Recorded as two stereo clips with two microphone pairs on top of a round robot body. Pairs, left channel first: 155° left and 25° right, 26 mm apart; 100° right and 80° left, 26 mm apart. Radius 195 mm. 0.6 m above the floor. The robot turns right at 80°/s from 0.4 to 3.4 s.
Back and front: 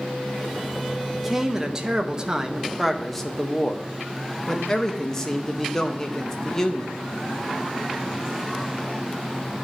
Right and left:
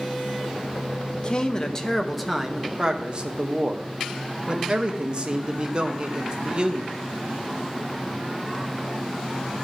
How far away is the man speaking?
About 1.1 m.